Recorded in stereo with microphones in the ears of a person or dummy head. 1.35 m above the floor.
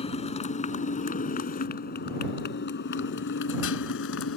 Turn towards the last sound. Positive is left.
turn(degrees=60)  # may be behind; listen again after turning